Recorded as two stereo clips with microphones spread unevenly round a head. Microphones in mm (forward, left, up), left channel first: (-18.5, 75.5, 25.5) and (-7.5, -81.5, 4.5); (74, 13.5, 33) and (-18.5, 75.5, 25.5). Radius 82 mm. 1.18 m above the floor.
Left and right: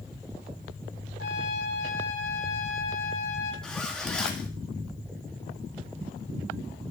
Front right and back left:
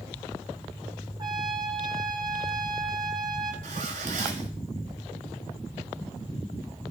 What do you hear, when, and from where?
1.2 s a trumpet: 95° left, 2.5 m
3.6 s a zipper: straight behind, 1.7 m